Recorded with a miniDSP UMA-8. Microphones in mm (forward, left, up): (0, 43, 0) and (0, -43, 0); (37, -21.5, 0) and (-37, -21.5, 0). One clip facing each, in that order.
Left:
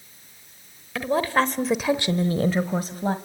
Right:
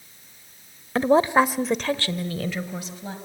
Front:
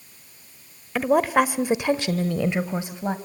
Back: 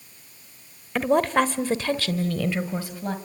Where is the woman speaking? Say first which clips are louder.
Right 4 dB, front 1 dB; 85° right, 1.1 m; by 3.2 s 65° left, 1.7 m.